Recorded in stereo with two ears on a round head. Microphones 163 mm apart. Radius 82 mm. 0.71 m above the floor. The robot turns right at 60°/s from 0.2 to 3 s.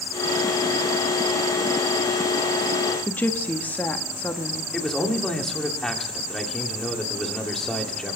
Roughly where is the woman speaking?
Centre.